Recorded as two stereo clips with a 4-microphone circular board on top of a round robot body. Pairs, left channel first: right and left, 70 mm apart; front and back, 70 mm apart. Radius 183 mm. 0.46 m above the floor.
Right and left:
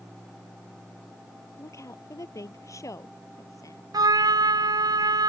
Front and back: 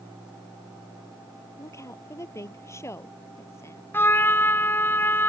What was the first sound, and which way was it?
A woman speaking, 45° right.